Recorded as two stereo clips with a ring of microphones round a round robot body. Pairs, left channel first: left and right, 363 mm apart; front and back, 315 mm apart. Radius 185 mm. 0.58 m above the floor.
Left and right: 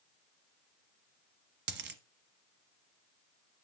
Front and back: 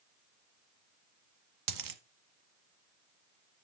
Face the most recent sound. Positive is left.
turn(degrees=-150)